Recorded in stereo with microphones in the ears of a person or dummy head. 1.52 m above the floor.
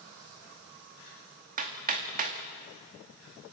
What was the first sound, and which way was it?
Hammering, 40° right (ahead or behind).